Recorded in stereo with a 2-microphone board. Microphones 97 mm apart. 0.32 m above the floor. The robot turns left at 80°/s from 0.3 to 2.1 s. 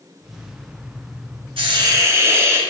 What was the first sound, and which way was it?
A hiss, 110° right.